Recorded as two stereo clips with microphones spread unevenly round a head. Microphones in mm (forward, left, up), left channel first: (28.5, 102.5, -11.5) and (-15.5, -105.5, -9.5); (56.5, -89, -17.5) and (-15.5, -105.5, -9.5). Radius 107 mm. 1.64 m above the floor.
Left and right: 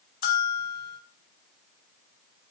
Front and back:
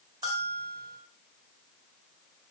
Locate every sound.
0.2 s a bell: 125° left, 1.3 m